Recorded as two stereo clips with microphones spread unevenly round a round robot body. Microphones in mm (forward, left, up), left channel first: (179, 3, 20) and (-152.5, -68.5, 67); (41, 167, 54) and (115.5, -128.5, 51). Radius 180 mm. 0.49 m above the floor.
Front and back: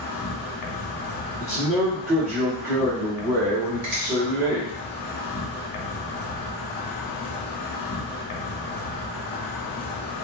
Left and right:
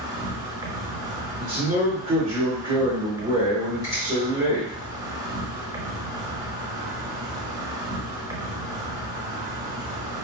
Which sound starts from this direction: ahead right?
A man speaking, at 1.4 s.